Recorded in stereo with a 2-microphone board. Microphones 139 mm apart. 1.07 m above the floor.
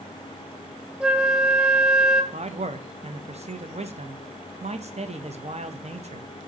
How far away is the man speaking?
About 0.9 m.